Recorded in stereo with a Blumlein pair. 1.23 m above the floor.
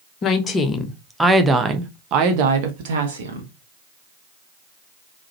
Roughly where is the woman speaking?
Ahead left.